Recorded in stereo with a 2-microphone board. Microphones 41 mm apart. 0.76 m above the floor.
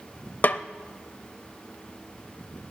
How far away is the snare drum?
About 0.6 m.